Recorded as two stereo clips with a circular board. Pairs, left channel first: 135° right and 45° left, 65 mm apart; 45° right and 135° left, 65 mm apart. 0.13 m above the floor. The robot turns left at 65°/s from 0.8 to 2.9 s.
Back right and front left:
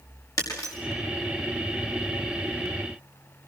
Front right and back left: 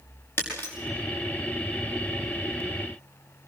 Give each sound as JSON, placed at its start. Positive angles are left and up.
{"t": 0.4, "sound": "breaking glass", "azimuth_deg": -105, "distance_m": 6.0}